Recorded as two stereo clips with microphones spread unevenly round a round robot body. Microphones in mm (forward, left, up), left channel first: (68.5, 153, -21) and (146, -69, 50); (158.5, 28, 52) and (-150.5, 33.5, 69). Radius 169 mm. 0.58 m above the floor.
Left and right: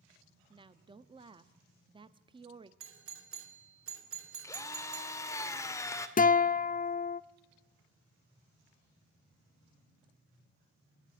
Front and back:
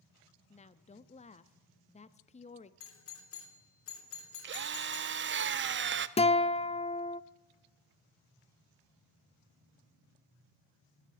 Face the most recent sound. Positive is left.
turn(degrees=65)